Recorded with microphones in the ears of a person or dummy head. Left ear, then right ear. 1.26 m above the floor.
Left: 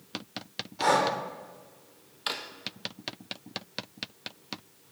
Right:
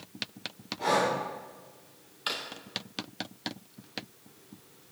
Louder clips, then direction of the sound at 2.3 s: Even; 15° left (ahead or behind).